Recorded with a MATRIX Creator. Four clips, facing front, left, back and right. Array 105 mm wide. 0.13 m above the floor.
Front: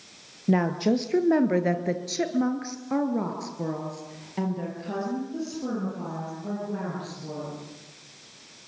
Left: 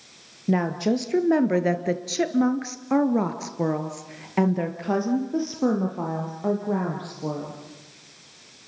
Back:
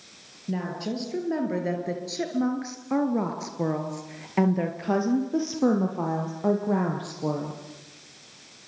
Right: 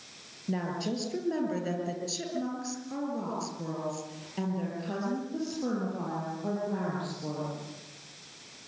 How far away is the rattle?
I don't hear a rattle.